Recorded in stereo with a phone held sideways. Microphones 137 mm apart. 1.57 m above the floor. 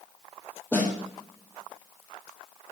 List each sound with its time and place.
0.7 s a snare drum: 15° left (ahead or behind), 4.5 m